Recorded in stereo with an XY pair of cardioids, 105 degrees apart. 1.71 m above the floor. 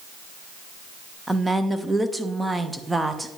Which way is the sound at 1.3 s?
15° right.